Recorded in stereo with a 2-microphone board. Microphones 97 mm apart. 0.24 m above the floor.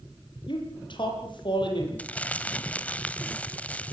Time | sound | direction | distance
0.5 | a man speaking | 60° left (ahead or behind) | 9.5 m
2.0 | crumpling | 15° left (ahead or behind) | 1.3 m